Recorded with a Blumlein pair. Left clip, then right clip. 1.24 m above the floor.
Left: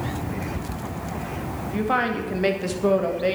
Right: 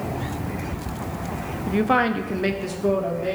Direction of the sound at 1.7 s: 20° right.